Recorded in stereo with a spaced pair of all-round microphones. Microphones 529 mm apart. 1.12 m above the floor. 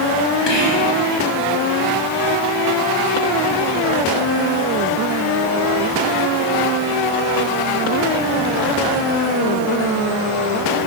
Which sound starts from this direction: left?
Whispering, at 0.5 s.